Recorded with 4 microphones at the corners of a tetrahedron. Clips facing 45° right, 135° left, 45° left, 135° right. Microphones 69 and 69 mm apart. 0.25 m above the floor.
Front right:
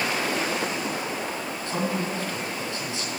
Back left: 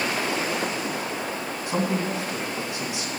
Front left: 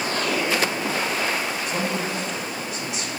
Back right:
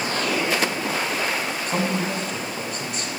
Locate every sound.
1.7 s a man speaking: 160° right, 2.0 m